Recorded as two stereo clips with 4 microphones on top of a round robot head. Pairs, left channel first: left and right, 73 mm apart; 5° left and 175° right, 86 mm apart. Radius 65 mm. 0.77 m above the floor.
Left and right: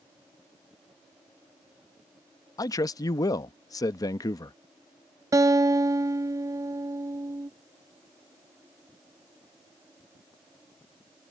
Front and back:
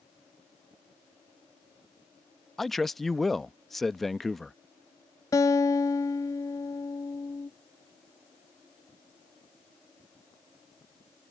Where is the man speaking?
90° left.